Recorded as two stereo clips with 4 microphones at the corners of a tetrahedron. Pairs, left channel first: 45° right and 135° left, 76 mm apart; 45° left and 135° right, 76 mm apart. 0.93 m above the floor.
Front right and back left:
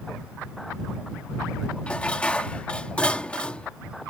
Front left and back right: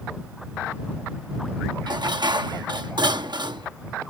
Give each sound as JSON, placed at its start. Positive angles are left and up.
{"t": 1.9, "sound": "dishes clattering", "azimuth_deg": -120}